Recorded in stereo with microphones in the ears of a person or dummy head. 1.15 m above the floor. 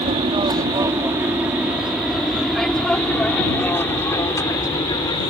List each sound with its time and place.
0.0 s an aircraft: 30° right (ahead or behind); by 5.3 s 20° left (ahead or behind)